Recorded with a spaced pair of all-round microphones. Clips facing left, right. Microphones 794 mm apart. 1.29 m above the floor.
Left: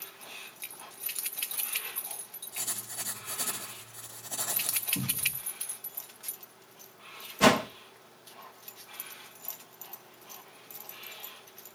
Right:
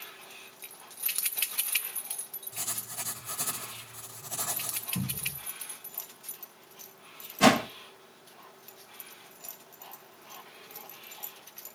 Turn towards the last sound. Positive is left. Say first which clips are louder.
# right 1 dB
turn(degrees=5)  # may be behind; listen again after turning